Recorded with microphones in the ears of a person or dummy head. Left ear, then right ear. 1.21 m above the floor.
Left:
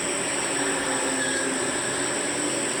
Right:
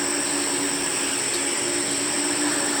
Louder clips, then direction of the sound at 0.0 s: Right 2 dB; 80° right.